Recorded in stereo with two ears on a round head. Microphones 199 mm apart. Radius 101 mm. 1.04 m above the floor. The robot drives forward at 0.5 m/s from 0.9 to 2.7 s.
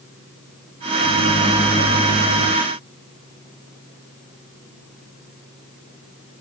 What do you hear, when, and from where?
1.0 s a microwave: 55° left (ahead or behind), 0.8 m; by 2.5 s 30° left (ahead or behind), 1.3 m